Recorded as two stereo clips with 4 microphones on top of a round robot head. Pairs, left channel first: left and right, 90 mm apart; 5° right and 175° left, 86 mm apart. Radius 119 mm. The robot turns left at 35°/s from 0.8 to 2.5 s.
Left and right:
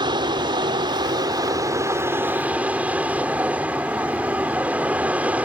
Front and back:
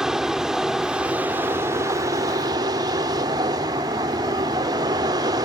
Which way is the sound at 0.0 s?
100° right.